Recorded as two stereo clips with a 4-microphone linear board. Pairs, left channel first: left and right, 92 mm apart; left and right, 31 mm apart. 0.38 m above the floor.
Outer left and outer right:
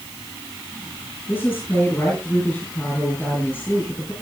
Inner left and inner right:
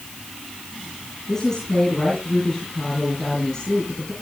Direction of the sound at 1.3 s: 20° left (ahead or behind).